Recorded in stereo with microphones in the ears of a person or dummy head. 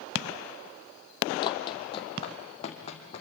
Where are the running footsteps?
40° left (ahead or behind), 2.5 m; by 3.2 s 50° left (ahead or behind), 3.5 m.